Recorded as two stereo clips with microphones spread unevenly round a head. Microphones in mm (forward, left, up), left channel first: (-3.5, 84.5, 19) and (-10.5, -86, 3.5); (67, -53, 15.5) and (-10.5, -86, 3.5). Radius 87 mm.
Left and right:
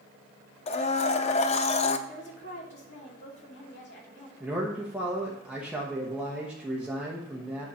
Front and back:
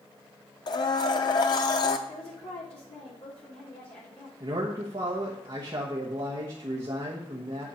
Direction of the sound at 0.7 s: 40° left.